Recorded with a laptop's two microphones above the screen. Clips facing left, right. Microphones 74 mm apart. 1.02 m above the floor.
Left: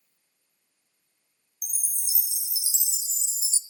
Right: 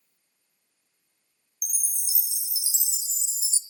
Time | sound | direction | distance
1.6 | a chime | 10° right (ahead or behind) | 0.8 m